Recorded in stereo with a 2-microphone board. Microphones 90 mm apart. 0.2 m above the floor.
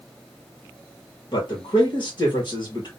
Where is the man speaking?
60° left (ahead or behind), 3 m.